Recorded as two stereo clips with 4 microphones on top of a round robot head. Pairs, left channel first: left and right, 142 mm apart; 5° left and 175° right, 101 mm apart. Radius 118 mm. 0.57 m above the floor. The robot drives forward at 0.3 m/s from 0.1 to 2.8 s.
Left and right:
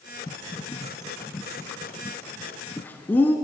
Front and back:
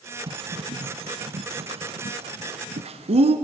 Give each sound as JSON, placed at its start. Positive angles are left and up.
{"t": 0.3, "sound": "a bird", "azimuth_deg": 160, "distance_m": 0.8}